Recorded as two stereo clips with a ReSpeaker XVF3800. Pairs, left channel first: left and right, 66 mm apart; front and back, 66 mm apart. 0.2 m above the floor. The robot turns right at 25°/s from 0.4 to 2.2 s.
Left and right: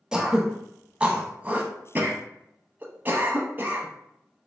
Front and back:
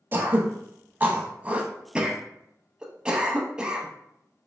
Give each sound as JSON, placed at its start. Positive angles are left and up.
{"t": 0.1, "sound": "throat clearing", "azimuth_deg": -160, "distance_m": 0.6}